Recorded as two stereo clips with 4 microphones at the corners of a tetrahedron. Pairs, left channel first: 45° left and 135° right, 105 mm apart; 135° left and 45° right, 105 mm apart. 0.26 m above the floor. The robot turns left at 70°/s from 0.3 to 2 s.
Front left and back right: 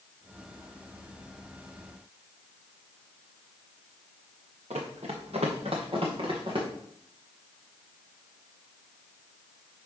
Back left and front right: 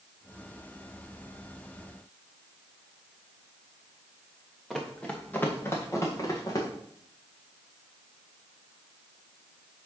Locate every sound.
4.7 s running footsteps: 135° right, 1.6 m; by 6.7 s 170° right, 3 m